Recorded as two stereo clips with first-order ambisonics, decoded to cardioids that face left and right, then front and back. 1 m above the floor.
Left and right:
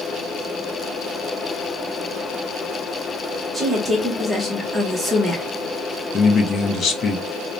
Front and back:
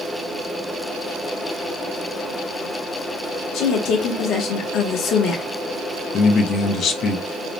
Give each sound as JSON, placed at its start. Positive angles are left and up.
{"t": 3.5, "sound": "a woman speaking", "azimuth_deg": -15, "distance_m": 0.6}
{"t": 6.1, "sound": "a man speaking", "azimuth_deg": 40, "distance_m": 0.5}